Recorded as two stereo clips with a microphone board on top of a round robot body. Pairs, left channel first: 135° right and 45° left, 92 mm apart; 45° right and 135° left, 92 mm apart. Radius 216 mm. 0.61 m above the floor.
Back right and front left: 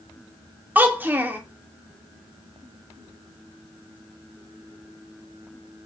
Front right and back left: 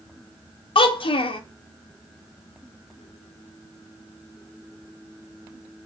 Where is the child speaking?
25° right, 0.7 m.